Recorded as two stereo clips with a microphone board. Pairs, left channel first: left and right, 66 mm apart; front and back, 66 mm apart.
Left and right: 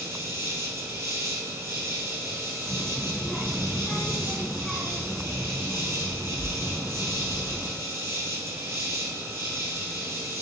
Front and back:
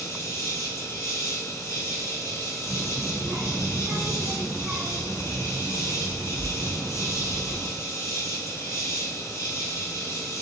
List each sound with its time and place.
0.0 s an insect: 45° right, 1.3 m
2.7 s a child speaking: 170° left, 0.6 m